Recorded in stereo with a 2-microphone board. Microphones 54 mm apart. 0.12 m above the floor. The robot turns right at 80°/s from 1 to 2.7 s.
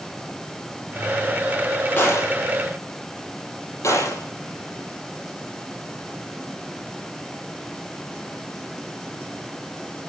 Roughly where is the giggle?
I don't hear a giggle.